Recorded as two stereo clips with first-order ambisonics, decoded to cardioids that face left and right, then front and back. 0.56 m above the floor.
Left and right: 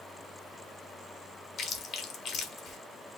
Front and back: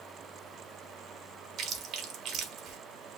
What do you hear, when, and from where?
1.6 s chewing: 130° left, 1.1 m